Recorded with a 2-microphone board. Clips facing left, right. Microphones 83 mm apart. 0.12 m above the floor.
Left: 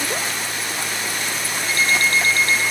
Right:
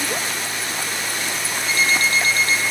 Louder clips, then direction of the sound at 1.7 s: Even; 50° left (ahead or behind).